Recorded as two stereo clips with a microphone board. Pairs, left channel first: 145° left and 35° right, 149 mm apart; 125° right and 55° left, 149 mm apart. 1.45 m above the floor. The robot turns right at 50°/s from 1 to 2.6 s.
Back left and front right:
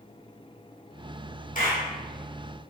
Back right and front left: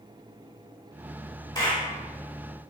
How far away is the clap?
About 3 m.